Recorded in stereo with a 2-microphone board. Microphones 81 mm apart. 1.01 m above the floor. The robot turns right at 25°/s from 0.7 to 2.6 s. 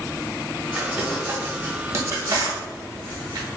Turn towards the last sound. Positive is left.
turn(degrees=-55)  # may be behind; listen again after turning